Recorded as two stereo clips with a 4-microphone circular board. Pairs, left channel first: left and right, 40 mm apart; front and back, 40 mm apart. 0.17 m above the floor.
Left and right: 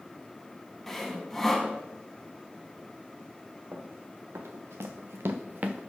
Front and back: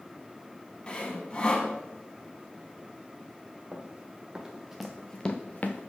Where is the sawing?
10° left, 0.9 m.